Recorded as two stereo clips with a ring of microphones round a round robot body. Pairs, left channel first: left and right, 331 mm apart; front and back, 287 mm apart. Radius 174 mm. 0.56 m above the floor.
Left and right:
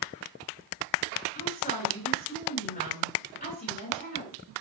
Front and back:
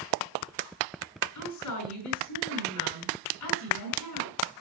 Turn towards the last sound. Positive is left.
turn(degrees=25)